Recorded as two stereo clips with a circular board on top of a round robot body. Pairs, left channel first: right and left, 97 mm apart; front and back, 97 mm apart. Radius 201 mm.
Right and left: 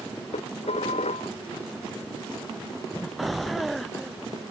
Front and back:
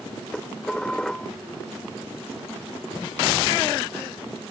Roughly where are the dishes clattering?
Right.